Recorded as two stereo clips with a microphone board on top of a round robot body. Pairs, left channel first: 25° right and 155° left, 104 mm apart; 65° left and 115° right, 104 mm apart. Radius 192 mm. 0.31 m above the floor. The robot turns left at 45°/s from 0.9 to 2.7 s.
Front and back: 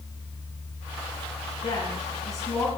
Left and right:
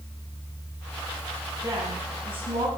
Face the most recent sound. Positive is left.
turn(degrees=-95)